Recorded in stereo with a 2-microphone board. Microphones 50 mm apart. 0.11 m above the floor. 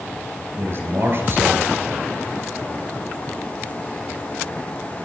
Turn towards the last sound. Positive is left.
turn(degrees=-45)  # may be behind; listen again after turning